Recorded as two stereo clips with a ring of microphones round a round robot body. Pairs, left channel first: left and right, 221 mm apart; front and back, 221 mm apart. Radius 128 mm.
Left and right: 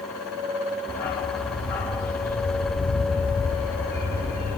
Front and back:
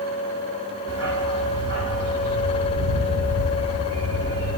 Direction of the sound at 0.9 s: 170° left.